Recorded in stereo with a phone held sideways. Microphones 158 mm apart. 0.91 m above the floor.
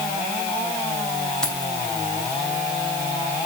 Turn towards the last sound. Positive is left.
turn(degrees=5)  # may be behind; listen again after turning